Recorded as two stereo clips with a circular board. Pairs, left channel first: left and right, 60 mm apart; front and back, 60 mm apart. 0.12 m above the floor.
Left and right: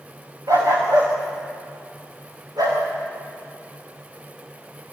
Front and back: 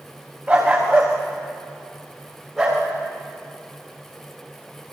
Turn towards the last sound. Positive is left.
turn(degrees=-95)